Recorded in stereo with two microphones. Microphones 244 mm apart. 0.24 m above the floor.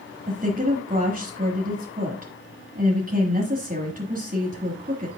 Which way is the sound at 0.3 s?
30° right (ahead or behind).